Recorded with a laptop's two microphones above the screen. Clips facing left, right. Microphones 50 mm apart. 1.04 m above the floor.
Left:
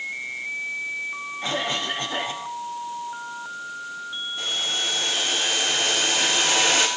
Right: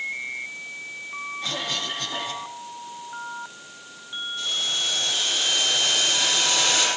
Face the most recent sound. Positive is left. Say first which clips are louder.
# even
turn(degrees=25)  # may be behind; listen again after turning